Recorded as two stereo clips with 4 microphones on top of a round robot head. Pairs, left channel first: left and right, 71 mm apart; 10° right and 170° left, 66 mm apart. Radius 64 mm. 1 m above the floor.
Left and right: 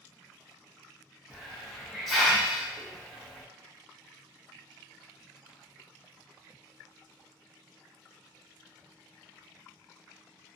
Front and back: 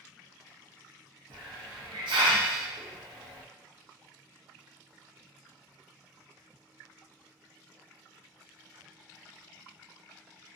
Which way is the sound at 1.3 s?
175° left.